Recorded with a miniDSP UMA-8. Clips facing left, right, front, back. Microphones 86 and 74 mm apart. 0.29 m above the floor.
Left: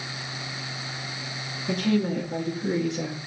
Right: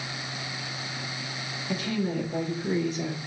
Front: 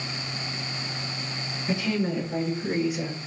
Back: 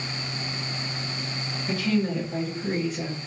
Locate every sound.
1.7 s a woman speaking: 75° left, 3.5 m; by 3.2 s 80° left, 3 m